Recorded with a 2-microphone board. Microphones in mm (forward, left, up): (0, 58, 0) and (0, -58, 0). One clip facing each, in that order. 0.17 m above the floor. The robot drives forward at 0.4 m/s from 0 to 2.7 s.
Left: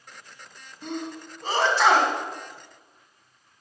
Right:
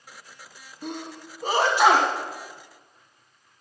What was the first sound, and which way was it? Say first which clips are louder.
A sneeze: left 2 dB; 15° right (ahead or behind).